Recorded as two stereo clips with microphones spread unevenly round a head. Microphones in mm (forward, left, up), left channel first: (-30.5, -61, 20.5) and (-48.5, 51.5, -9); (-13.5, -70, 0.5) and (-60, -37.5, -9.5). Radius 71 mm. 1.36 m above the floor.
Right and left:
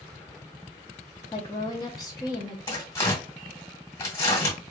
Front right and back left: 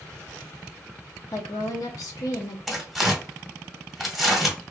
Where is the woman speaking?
15° right, 0.6 m.